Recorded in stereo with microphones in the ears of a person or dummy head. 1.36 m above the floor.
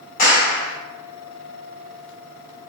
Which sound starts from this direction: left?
A clap, at 0.2 s.